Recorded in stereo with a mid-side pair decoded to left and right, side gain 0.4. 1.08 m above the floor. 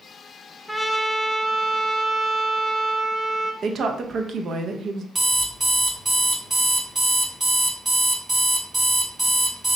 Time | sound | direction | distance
0.7 | a trumpet | straight ahead | 0.7 m
3.6 | a woman speaking | 60° right | 0.7 m
5.2 | an alarm clock | 25° right | 1.5 m